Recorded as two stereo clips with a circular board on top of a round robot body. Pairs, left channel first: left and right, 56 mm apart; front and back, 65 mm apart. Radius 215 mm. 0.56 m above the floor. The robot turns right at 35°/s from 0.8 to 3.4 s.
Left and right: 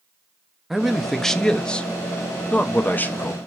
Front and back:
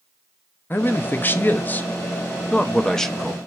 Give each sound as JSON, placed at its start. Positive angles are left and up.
{"t": 0.7, "sound": "a man speaking", "azimuth_deg": 0, "distance_m": 0.6}